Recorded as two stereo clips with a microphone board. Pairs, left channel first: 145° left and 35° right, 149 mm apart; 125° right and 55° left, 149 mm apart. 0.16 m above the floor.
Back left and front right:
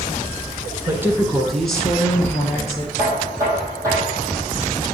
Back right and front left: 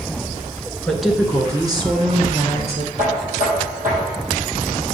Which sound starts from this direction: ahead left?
Knocking, at 3.0 s.